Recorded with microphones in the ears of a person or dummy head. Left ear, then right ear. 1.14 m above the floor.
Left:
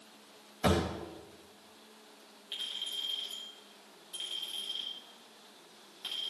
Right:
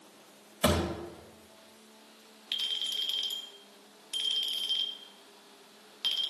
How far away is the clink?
About 1.8 m.